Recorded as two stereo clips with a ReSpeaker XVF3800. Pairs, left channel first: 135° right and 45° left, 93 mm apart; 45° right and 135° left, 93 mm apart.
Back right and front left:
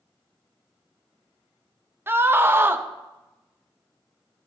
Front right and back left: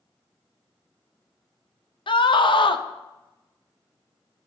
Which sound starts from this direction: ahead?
A scream, at 2.1 s.